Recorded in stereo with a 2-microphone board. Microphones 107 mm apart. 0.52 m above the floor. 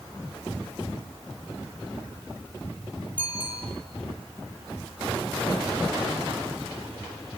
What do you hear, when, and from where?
3.2 s a bicycle bell: 15° left (ahead or behind), 9 m